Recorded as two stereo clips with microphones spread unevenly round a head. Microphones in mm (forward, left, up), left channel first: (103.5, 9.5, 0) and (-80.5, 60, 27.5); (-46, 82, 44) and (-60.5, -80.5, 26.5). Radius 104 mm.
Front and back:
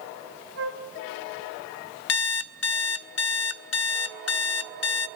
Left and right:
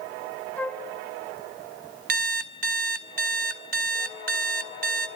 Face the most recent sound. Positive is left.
turn(degrees=-45)